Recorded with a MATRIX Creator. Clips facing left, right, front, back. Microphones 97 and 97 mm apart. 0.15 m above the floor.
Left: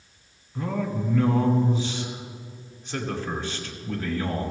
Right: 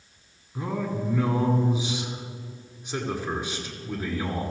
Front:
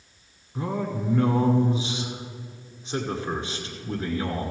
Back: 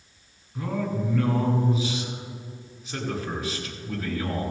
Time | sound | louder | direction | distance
0.6 | a man speaking | left 1 dB, even | 30° right | 1.7 m